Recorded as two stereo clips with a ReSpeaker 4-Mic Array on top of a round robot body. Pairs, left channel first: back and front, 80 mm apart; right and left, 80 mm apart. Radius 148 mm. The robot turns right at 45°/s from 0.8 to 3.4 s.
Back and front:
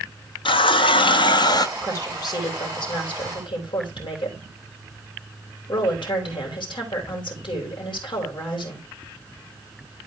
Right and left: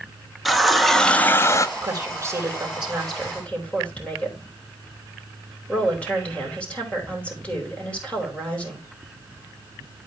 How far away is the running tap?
About 0.7 m.